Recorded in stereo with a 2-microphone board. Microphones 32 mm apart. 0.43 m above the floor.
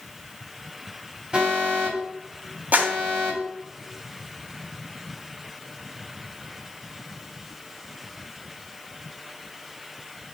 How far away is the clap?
About 2.5 m.